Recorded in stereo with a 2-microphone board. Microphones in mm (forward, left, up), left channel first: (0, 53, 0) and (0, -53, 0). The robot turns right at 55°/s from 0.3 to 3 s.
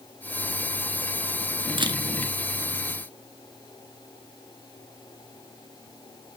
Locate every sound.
1.8 s a camera shutter: 55° right (ahead or behind), 0.7 m; by 2.0 s 45° right (ahead or behind), 0.7 m